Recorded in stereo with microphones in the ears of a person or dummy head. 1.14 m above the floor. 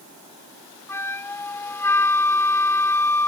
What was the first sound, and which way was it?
A flute, 15° left (ahead or behind).